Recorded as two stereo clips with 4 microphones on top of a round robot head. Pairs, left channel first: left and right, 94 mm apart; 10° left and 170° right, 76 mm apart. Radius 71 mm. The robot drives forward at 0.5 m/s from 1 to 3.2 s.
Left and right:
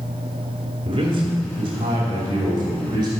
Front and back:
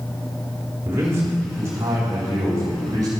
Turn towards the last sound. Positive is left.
turn(degrees=-130)